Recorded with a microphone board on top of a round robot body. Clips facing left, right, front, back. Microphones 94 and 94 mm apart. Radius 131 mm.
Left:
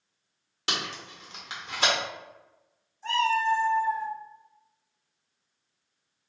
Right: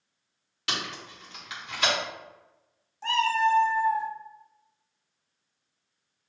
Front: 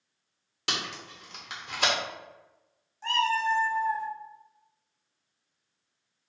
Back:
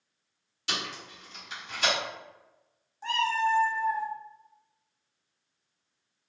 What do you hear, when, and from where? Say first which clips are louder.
0.7 s tape being pulled: left 1 dB, front 1 dB; 30° left, 1.2 m
3.0 s a cat meowing: right 1 dB, even; 100° right, 0.6 m